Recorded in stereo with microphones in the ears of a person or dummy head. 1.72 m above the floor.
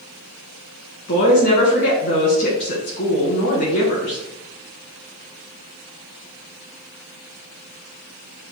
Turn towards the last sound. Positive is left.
turn(degrees=55)  # may be behind; listen again after turning